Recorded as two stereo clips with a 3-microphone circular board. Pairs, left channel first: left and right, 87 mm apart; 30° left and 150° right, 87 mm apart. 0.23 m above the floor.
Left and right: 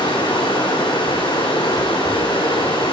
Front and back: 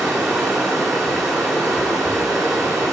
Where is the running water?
125° left, 2.5 m.